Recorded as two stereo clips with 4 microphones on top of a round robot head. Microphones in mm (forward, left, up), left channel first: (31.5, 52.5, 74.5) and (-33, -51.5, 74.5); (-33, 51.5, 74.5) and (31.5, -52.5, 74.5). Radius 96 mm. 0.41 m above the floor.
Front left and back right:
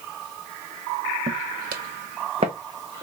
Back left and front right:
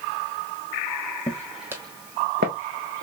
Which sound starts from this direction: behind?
Footsteps, at 1.3 s.